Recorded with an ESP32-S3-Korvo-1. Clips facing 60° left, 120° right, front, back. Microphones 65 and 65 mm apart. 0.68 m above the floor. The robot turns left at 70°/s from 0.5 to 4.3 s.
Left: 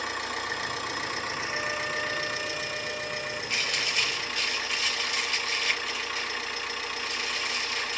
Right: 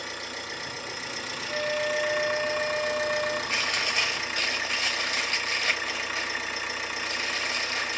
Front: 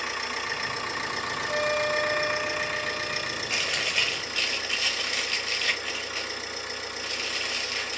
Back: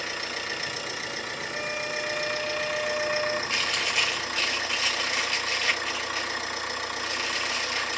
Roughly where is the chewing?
Ahead right.